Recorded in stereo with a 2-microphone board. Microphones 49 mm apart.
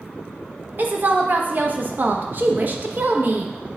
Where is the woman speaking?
40° right (ahead or behind), 0.9 m.